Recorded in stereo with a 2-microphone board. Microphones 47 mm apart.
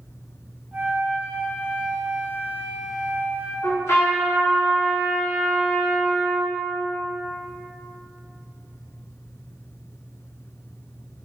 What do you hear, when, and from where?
0.7 s a flute: 25° right (ahead or behind), 1.0 m
3.6 s a trumpet: 80° left, 1.6 m